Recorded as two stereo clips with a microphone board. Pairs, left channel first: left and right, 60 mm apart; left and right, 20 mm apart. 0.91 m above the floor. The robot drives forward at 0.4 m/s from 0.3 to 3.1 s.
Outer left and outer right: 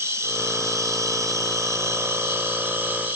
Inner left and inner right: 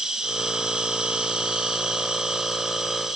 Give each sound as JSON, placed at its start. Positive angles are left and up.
{"t": 0.0, "sound": "an insect", "side_deg": -45, "distance_m": 0.7}